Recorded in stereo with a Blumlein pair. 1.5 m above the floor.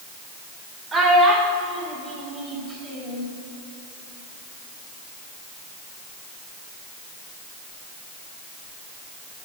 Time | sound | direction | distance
0.9 | a child speaking | 10° right | 3 m